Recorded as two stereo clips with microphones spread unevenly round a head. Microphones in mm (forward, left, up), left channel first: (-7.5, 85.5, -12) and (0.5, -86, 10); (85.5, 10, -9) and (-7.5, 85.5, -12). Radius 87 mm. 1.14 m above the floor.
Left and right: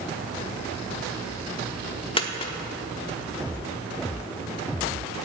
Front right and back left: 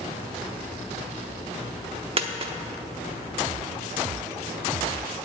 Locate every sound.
2.2 s a dropped coin: 150° left, 0.8 m